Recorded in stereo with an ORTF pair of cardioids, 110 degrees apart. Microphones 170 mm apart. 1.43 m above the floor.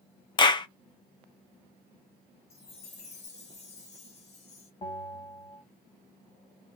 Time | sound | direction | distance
0.4 | a clap | 25° left | 0.6 m
2.5 | a chime | 40° left | 1.4 m
4.8 | a bell | 30° left | 1.5 m